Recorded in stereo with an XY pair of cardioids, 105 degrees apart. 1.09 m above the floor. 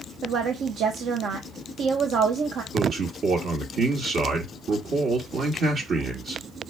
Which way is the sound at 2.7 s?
60° right.